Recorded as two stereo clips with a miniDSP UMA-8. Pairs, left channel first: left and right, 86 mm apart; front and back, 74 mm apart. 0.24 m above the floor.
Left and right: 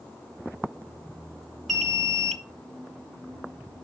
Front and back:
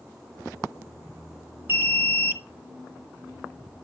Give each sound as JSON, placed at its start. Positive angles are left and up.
{"t": 1.7, "sound": "an alarm", "azimuth_deg": 170, "distance_m": 1.0}